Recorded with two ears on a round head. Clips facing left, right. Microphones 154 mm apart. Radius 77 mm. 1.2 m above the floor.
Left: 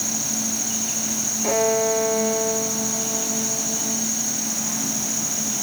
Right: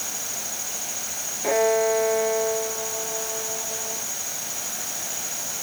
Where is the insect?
75° left (ahead or behind).